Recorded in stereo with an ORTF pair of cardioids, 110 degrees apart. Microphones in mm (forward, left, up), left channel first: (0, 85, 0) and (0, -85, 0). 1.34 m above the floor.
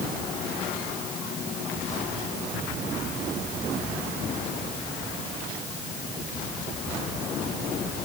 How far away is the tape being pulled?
I don't hear tape being pulled.